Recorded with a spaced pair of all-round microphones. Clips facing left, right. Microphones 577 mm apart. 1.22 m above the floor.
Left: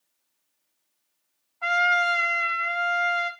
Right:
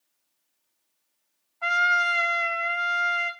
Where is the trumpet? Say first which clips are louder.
Left 5 dB; centre (ahead or behind), 1.7 m.